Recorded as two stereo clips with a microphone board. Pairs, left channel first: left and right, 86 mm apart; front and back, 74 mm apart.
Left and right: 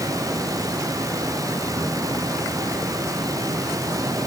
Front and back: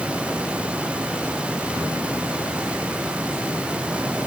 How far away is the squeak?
I don't hear a squeak.